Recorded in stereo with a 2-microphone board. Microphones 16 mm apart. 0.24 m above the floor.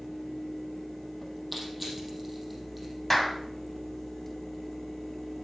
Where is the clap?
15° left (ahead or behind), 1.5 m.